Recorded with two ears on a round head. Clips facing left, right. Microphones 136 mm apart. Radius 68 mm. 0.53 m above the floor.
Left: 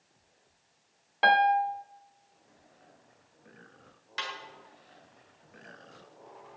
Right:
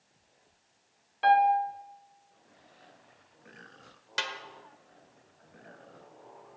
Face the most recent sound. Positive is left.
turn(degrees=-65)  # may be behind; listen again after turning